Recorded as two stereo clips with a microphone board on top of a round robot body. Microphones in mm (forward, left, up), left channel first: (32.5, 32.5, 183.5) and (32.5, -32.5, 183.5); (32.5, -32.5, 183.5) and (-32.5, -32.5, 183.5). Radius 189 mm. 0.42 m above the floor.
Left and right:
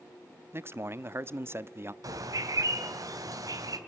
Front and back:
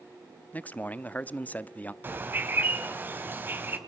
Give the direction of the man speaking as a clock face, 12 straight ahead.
2 o'clock.